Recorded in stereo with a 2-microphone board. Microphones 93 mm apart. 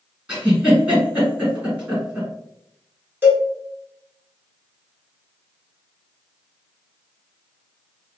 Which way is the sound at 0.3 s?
15° right (ahead or behind).